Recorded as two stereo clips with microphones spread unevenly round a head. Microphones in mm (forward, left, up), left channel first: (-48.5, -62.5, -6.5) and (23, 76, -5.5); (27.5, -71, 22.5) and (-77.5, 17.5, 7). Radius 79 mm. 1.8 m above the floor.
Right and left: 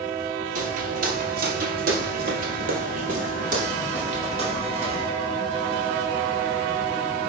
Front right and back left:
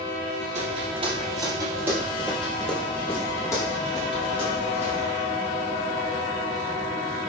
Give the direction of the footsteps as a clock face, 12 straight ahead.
9 o'clock.